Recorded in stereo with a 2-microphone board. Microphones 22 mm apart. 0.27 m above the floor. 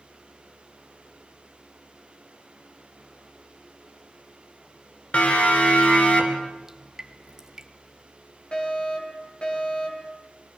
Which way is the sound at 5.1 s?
70° left (ahead or behind).